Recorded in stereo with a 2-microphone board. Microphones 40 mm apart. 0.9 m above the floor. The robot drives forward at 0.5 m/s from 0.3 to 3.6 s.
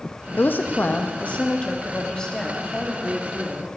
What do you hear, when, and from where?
0.4 s a woman speaking: 60° left (ahead or behind), 0.6 m; by 3.7 s 15° left (ahead or behind), 1.9 m